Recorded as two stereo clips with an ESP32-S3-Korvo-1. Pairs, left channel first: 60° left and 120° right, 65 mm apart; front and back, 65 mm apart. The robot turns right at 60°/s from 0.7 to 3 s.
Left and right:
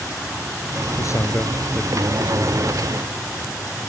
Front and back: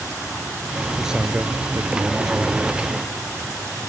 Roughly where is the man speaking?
Left.